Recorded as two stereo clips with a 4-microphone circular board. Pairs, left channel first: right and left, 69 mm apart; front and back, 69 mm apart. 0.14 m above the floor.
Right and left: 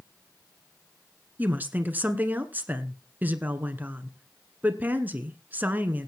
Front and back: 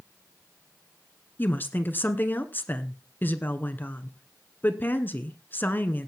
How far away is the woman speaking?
About 1.3 m.